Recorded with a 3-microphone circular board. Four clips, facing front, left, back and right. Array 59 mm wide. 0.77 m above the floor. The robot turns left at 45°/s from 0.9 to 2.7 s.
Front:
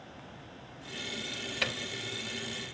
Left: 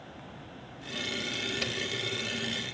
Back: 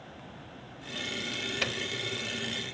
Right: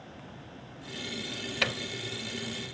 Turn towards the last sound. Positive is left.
turn(degrees=-140)